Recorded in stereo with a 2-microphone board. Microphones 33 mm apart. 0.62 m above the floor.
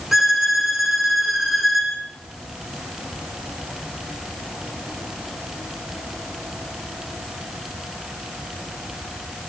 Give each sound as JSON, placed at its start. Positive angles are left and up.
{"t": 0.1, "sound": "a violin", "side_deg": -10, "distance_m": 6.0}